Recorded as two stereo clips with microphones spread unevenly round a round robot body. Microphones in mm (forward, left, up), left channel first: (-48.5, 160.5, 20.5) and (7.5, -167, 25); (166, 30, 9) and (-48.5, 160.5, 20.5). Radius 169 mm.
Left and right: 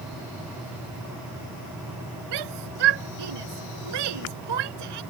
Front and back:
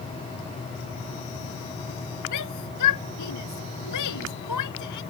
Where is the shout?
65° right.